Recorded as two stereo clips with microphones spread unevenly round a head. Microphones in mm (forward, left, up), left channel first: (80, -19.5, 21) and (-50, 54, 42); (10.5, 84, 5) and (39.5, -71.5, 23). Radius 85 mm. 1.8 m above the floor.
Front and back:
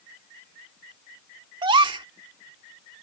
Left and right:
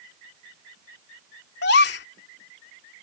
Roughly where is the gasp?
Left.